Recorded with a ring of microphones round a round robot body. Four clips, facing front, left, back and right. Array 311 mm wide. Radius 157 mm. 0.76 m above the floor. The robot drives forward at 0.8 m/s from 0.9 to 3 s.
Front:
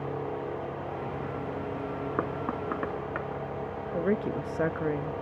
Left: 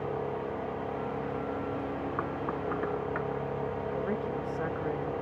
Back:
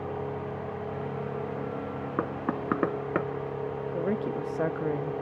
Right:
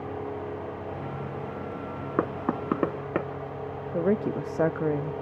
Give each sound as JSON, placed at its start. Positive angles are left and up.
{"t": 2.2, "sound": "knocking", "azimuth_deg": -85, "distance_m": 0.9}
{"t": 3.9, "sound": "a woman speaking", "azimuth_deg": -75, "distance_m": 0.6}